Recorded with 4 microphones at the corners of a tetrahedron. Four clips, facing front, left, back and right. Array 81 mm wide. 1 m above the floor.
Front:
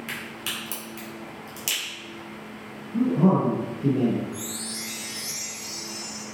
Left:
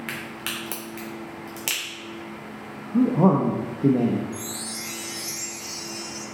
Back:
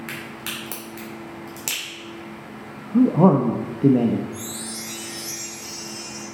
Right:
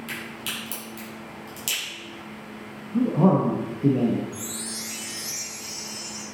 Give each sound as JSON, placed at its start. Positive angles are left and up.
{"t": 0.1, "sound": "a crack", "azimuth_deg": 120, "distance_m": 3.0}
{"t": 2.9, "sound": "a man speaking", "azimuth_deg": 165, "distance_m": 0.9}
{"t": 4.3, "sound": "a chime", "azimuth_deg": 95, "distance_m": 3.5}